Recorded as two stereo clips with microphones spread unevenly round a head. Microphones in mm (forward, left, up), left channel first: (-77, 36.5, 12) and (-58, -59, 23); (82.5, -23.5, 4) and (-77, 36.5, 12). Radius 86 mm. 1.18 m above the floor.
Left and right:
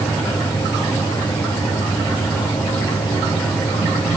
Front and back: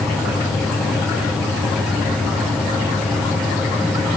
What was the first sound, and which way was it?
Only background noise.